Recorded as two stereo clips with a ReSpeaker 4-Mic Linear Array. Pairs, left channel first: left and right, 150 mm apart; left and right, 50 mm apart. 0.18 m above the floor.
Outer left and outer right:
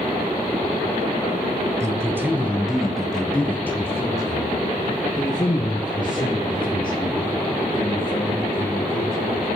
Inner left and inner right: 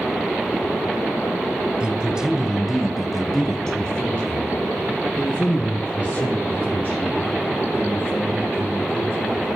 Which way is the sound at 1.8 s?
20° right (ahead or behind).